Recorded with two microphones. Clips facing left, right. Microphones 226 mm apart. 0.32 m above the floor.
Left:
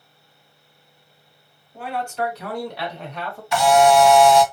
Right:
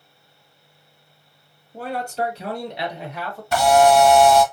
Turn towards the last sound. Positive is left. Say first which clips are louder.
# even
turn(degrees=-50)  # may be behind; listen again after turning